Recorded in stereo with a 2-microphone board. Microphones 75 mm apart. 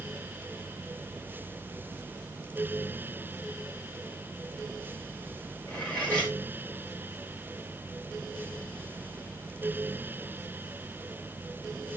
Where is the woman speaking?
I don't hear a woman speaking.